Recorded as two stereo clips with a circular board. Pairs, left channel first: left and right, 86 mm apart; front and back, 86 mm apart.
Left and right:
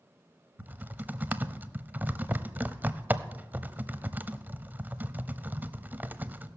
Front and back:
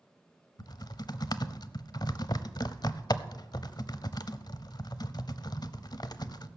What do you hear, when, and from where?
0.6 s typing on a keyboard: 25° right, 0.7 m